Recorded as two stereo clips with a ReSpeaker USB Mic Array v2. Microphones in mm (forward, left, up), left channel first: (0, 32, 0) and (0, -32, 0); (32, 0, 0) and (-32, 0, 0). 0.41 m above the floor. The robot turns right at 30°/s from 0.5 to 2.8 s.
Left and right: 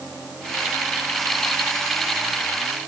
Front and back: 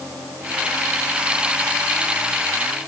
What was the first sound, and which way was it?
Only background noise.